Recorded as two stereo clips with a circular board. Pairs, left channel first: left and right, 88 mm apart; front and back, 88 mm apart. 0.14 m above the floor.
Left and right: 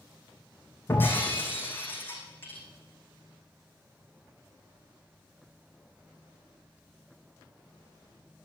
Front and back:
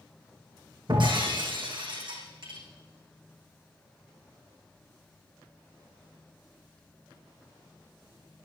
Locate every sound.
0.9 s breaking glass: 160° left, 5 m